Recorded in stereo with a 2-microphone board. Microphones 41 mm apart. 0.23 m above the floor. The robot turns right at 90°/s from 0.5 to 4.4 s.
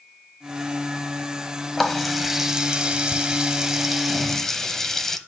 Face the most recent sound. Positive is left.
turn(degrees=10)  # may be behind; listen again after turning